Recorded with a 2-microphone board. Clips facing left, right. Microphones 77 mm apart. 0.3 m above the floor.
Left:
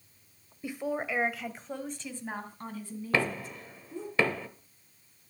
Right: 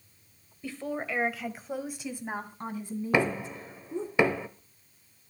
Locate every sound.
0.6 s a woman speaking: 15° left (ahead or behind), 1.1 m; by 4.1 s 25° right (ahead or behind), 3 m
3.1 s knocking: 20° right (ahead or behind), 0.9 m